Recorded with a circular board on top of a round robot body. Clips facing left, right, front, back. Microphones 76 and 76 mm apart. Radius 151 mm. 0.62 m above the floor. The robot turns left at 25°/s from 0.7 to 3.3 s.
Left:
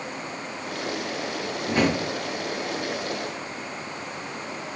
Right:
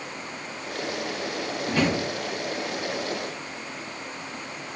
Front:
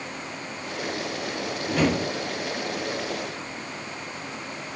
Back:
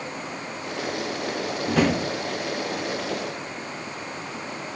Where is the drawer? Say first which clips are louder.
Left 2 dB, back 2 dB; 165° left, 0.5 m; by 2.0 s 155° left, 0.5 m.